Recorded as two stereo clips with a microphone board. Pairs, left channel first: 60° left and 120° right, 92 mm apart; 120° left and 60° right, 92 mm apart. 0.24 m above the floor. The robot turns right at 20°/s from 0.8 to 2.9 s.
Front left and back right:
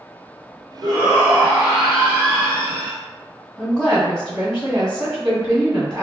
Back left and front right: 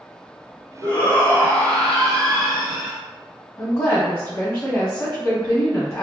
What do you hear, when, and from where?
0.8 s a shout: 170° left, 1.2 m; by 3.0 s 150° right, 1.2 m
3.6 s a woman speaking: 165° left, 1.5 m